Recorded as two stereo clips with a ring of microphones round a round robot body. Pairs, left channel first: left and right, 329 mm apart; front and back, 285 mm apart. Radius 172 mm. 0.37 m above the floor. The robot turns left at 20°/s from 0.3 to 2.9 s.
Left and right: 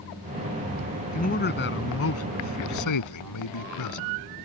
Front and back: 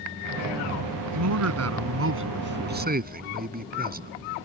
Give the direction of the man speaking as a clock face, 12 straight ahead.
7 o'clock.